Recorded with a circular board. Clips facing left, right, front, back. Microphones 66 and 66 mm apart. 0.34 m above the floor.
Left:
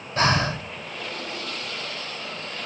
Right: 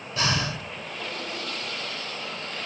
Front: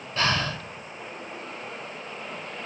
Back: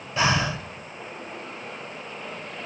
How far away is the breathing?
About 0.7 m.